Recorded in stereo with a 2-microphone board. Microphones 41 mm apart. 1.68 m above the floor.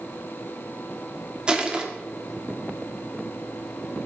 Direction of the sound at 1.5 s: 20° right (ahead or behind).